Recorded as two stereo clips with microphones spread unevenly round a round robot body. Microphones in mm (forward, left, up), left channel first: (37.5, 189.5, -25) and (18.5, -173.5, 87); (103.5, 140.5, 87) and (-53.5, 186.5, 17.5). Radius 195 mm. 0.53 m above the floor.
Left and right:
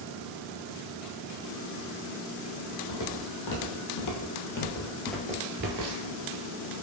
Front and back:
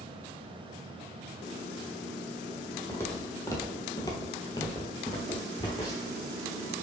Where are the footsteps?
50° left, 1.6 m; by 6.2 s 75° right, 0.9 m.